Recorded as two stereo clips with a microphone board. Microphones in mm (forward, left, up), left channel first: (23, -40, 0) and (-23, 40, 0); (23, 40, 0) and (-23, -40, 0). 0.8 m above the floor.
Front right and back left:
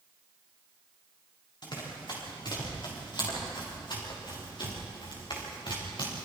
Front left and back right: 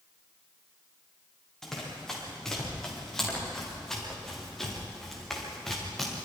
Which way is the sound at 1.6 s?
25° right.